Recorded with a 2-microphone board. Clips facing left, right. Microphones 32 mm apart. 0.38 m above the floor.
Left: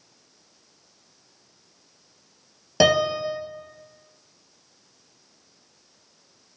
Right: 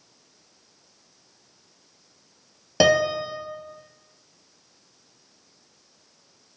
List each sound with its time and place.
2.8 s a piano: 5° right (ahead or behind), 1.1 m